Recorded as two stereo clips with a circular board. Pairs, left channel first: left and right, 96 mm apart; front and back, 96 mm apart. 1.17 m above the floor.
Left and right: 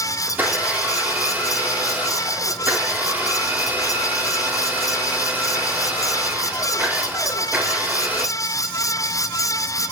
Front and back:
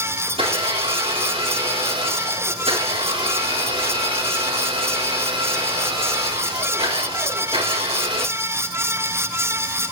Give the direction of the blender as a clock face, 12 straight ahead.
5 o'clock.